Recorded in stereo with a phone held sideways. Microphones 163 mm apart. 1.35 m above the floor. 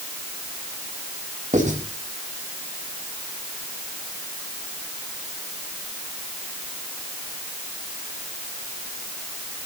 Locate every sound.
1.5 s writing: 45° right (ahead or behind), 6.5 m